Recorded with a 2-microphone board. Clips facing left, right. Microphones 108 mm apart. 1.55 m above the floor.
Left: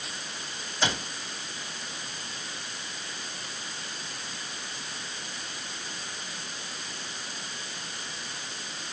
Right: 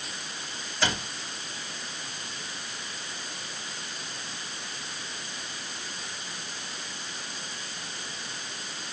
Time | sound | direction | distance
0.8 | a cupboard door | 15° left (ahead or behind) | 4.5 m